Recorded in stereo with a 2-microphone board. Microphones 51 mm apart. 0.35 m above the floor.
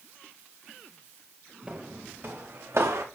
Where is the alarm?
I don't hear an alarm.